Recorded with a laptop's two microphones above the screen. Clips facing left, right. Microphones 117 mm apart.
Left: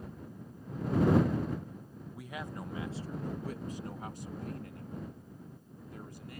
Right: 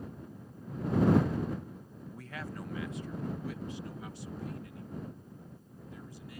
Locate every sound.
2.1 s a man speaking: 10° left (ahead or behind); by 6.4 s 55° left (ahead or behind)